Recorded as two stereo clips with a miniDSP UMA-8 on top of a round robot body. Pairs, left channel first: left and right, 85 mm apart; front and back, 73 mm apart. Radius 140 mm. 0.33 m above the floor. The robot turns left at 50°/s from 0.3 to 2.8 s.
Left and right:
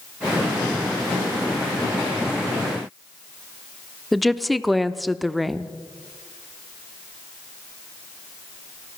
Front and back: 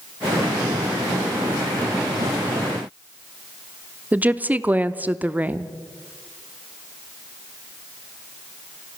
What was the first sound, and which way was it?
A woman speaking, straight behind.